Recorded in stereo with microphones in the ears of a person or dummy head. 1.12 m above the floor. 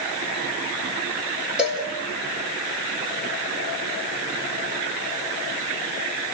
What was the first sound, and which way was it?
A cowbell, 10° right (ahead or behind).